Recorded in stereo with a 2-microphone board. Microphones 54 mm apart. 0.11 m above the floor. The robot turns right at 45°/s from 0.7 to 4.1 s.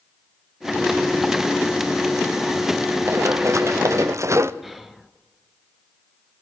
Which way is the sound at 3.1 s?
55° right (ahead or behind).